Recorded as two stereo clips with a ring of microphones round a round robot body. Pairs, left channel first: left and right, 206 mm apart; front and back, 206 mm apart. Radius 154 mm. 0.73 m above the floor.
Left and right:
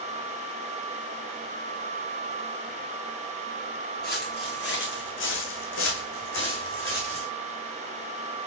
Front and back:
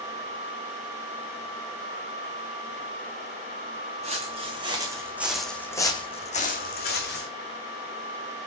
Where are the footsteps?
125° left, 3 m; by 7.3 s 25° left, 2.5 m.